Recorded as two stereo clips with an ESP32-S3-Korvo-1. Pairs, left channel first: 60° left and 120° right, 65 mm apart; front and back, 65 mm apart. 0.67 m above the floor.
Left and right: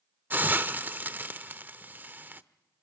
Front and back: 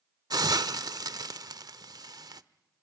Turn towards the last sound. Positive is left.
turn(degrees=180)